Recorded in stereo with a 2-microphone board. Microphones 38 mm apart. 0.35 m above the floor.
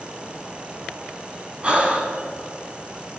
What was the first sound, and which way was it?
Breathing, 30° right (ahead or behind).